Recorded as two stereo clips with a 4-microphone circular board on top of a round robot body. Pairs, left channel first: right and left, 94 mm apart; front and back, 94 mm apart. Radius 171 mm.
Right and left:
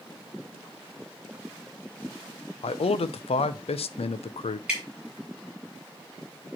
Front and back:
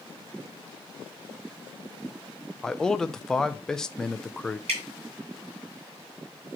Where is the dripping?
175° left, 2.5 m.